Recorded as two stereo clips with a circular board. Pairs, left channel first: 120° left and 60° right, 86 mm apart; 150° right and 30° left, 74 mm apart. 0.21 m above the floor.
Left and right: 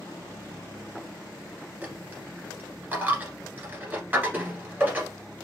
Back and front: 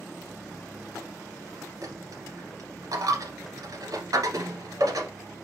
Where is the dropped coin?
10° left, 1.2 m.